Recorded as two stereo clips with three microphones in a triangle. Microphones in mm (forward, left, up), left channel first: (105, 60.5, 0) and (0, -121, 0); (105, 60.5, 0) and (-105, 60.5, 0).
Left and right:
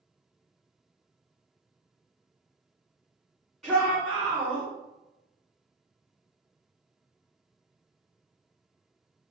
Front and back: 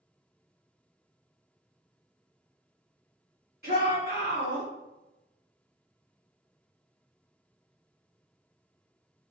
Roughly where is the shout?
Behind left.